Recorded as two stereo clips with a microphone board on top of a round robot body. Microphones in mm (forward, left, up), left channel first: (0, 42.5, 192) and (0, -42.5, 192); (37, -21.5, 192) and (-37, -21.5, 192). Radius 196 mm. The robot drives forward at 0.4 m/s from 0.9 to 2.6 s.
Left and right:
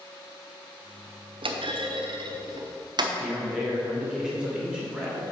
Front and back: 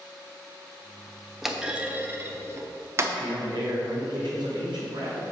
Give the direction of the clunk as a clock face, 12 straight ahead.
3 o'clock.